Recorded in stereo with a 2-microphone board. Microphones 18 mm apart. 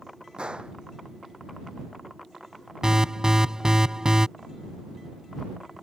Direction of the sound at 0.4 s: 65° right (ahead or behind).